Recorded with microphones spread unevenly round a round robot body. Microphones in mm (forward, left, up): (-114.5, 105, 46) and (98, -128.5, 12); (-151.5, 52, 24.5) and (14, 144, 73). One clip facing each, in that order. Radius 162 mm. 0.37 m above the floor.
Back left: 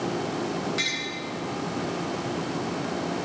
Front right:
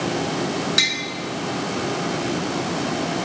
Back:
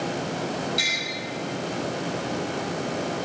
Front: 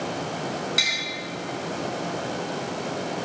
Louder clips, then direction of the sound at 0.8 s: Front right 4 dB, back 2 dB; 25° right.